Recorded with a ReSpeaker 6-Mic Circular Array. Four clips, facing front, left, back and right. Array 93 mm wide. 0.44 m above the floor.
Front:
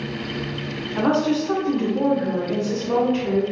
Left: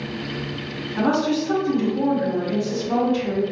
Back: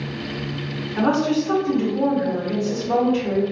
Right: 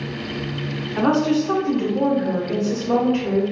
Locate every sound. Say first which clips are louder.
1.0 s a woman speaking: right 2 dB, even; 80° right, 1.3 m